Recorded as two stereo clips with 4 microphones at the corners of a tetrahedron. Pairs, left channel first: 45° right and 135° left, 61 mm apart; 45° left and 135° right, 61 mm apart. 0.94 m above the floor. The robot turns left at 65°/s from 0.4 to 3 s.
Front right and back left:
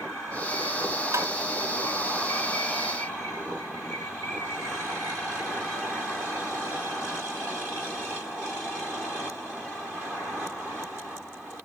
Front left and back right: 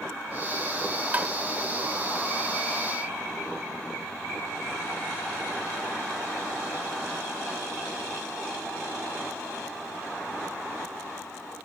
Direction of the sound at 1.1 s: 165° left.